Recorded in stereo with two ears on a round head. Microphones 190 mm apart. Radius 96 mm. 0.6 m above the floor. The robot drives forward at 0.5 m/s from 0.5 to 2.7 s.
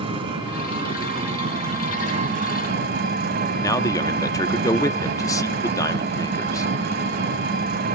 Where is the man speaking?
15° left (ahead or behind), 0.7 m.